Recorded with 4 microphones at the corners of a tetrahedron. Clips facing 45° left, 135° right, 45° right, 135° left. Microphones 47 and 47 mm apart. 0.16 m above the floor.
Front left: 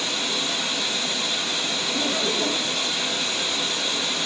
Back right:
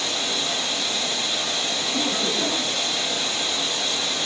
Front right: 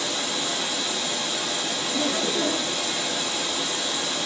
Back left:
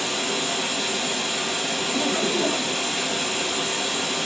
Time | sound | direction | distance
0.0 | running water | 115° left | 3 m
1.9 | laughter | 150° left | 2.5 m